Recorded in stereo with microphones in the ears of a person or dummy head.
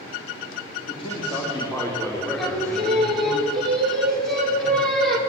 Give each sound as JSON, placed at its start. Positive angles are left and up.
{"t": 0.9, "sound": "a man speaking", "side_deg": 30, "distance_m": 4.0}
{"t": 2.4, "sound": "singing", "side_deg": 10, "distance_m": 4.0}